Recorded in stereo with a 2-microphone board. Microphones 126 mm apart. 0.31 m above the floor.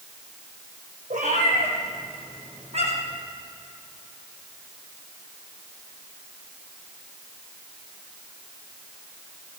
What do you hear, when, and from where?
1.1 s a cat meowing: 90° right, 4.5 m; by 3.2 s 60° right (ahead or behind), 4 m